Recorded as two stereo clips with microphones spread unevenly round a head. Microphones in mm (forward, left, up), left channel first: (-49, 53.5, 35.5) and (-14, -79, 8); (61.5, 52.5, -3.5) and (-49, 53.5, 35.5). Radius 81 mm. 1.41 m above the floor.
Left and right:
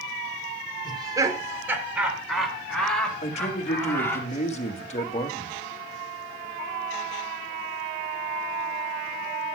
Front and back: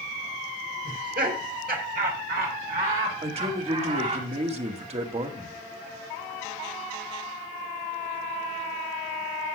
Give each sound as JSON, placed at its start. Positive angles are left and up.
{"t": 0.8, "sound": "laughter", "azimuth_deg": -135, "distance_m": 3.5}
{"t": 3.2, "sound": "a man speaking", "azimuth_deg": 150, "distance_m": 2.5}